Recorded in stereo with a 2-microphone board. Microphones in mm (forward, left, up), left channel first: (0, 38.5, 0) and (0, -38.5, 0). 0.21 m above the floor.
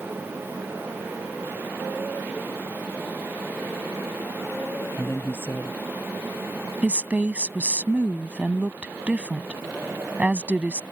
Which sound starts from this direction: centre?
A woman speaking, at 6.8 s.